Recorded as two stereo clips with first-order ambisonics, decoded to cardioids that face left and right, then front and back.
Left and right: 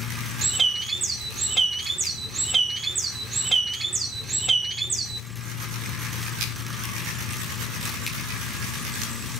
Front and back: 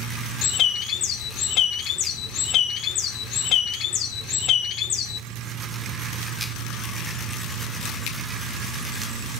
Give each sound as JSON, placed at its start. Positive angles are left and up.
{"t": 0.4, "sound": "a bird", "azimuth_deg": -25, "distance_m": 0.7}